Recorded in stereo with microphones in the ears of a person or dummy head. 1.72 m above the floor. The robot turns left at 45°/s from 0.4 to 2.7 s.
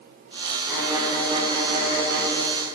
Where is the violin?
Straight ahead, 1.6 m; by 2.3 s 70° right, 1.6 m.